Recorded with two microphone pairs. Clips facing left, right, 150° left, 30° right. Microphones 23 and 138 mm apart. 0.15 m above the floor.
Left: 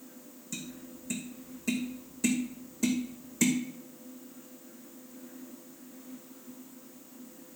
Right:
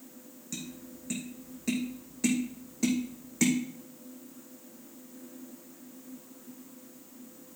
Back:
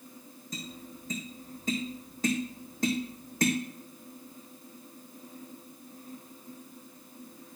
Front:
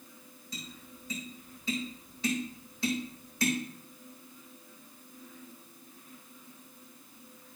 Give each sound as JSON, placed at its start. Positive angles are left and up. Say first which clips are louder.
{"t": 0.5, "sound": "tapping", "louder": "even, back 5 dB", "azimuth_deg": -160, "distance_m": 3.0}